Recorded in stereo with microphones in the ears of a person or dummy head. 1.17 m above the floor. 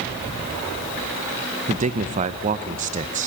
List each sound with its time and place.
1.7 s a man speaking: 35° right (ahead or behind), 0.7 m